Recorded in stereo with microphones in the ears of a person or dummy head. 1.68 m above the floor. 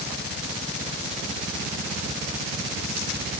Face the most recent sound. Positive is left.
No sound to turn to.